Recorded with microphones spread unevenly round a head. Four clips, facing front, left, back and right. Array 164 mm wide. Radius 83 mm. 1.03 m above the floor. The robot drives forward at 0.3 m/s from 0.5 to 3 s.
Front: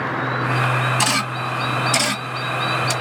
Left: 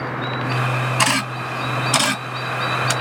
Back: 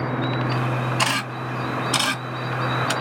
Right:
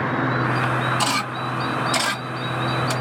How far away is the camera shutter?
About 2 m.